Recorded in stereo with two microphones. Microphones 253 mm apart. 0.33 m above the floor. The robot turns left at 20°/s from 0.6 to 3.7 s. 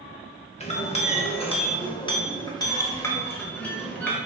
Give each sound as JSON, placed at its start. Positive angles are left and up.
{"t": 0.6, "sound": "a clink", "side_deg": 25, "distance_m": 0.6}